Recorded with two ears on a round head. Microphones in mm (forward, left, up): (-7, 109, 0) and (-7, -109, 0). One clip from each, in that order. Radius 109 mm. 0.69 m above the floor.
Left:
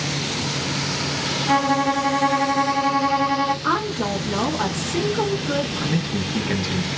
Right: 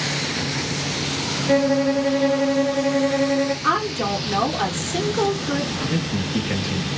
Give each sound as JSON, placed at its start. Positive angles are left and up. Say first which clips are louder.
{"t": 1.5, "sound": "a violin", "louder": "right 1 dB", "side_deg": 35, "distance_m": 1.2}
{"t": 3.6, "sound": "a woman speaking", "louder": "right 1 dB", "side_deg": -20, "distance_m": 0.8}
{"t": 5.8, "sound": "a man speaking", "louder": "even", "side_deg": 15, "distance_m": 0.7}